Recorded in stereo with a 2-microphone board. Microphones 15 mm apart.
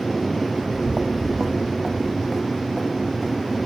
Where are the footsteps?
80° right, 0.9 m; by 3.6 s 20° left (ahead or behind), 3 m.